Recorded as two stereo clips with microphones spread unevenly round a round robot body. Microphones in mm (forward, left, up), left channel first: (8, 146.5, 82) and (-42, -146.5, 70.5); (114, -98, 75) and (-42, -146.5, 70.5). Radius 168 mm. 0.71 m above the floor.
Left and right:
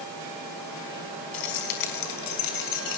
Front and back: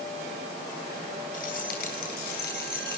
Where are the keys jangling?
70° left, 4.5 m; by 3.0 s 60° left, 6 m.